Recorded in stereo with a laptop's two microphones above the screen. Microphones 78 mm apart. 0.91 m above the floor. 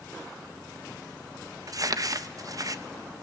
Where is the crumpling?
50° right (ahead or behind), 0.8 m.